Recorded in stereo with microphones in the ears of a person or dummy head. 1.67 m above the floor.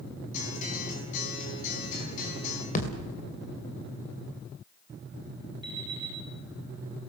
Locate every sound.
0.3 s a guitar: 50° left (ahead or behind), 5 m
2.8 s a thud: 50° left (ahead or behind), 2.5 m
5.6 s an alarm clock: 35° right (ahead or behind), 5.5 m